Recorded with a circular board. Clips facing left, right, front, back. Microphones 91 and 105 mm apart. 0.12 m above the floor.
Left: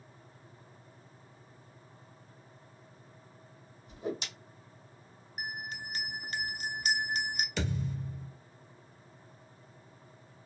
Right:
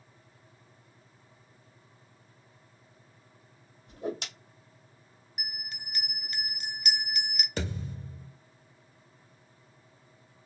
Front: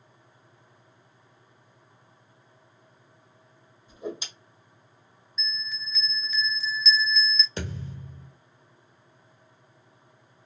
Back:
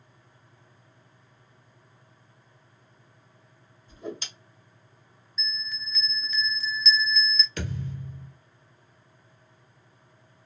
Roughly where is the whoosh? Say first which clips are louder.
Right 2 dB, front 2 dB; right.